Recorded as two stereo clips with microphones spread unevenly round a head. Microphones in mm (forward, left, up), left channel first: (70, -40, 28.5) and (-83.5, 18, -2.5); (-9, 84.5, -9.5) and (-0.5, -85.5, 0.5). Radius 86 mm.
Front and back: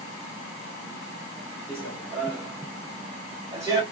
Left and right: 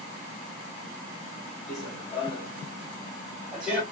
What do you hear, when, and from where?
1.7 s running footsteps: 60° left, 1.5 m; by 3.8 s 130° right, 1.3 m